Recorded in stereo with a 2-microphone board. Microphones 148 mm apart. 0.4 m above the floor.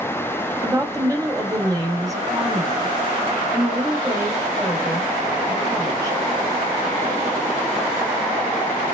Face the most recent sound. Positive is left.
turn(degrees=-25)  # may be behind; listen again after turning